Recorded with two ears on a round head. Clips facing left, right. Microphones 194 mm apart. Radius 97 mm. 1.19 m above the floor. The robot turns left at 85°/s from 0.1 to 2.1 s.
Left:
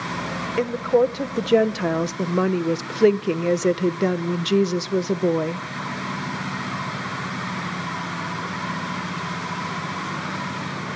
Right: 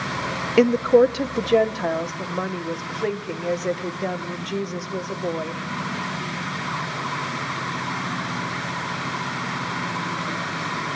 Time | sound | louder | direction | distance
0.6 | a woman speaking | right 4 dB | 115° right | 0.8 m